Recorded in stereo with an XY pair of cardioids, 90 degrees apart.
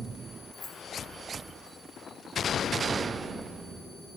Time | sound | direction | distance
0.5 | keys jangling | 45° left | 2.5 m